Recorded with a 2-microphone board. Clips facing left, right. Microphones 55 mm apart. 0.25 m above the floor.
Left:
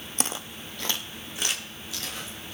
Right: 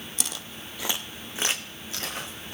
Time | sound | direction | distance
0.2 | footsteps | 45° left (ahead or behind) | 0.6 m